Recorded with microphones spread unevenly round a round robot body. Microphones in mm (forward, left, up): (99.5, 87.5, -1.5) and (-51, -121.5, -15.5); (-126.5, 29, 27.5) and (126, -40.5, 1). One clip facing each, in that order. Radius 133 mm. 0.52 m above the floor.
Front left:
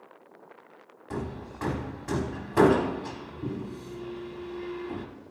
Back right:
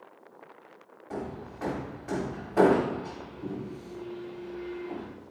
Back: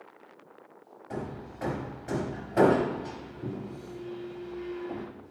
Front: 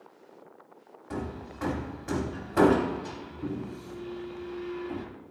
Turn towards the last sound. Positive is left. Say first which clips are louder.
# front left 1 dB, front 1 dB
turn(degrees=25)